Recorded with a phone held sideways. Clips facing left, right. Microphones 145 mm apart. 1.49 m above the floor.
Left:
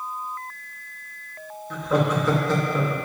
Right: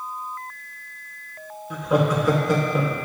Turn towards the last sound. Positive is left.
turn(degrees=-15)  # may be behind; listen again after turning